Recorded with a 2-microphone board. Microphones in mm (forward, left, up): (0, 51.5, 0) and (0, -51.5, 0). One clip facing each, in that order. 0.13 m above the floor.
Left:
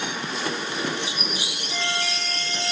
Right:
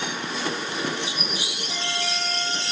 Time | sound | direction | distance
1.7 | a flute | 70° right (ahead or behind) | 6 m